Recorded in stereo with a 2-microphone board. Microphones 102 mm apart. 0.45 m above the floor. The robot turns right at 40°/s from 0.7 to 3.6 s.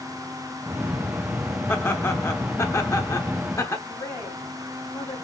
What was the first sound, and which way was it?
Laughter, 20° left (ahead or behind).